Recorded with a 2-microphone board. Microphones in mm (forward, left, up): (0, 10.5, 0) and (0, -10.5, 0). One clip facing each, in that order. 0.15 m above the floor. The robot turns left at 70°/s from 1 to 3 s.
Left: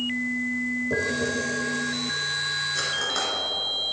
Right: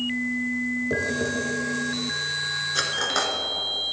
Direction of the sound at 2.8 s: 40° right (ahead or behind).